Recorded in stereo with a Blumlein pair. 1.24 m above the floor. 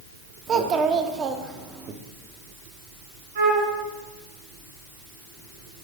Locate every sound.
0.5 s a child speaking: 25° right, 0.7 m
3.4 s a flute: 60° right, 3 m